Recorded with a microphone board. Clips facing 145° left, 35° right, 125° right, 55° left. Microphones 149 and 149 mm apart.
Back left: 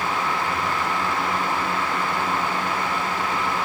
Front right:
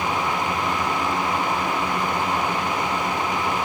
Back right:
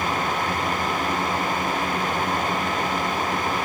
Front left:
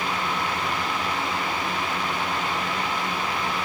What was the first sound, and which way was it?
Only background noise.